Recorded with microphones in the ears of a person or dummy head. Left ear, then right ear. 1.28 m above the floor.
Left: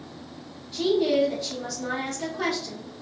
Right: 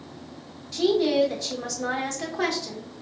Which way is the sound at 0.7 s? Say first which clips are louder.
Right 1 dB; 35° right (ahead or behind).